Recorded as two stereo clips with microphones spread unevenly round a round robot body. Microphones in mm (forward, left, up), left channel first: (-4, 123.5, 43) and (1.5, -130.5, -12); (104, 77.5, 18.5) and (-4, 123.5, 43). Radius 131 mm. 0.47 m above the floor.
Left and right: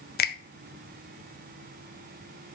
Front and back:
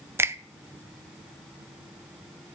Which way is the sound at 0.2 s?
85° left.